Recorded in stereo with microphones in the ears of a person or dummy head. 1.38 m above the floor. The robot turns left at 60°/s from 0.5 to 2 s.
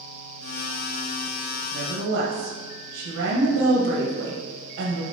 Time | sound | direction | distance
1.7 | a woman speaking | 45° right (ahead or behind) | 0.9 m